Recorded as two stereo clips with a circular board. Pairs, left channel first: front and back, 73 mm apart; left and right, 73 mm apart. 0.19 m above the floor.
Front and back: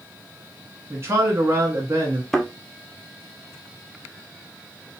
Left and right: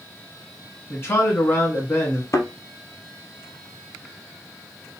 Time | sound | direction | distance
0.9 | a man speaking | 135° left | 1.7 m
2.3 | a thud | 80° left | 0.7 m